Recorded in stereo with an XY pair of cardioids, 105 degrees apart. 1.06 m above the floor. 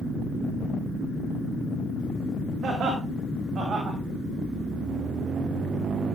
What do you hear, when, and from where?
2.6 s laughter: 55° right, 5.5 m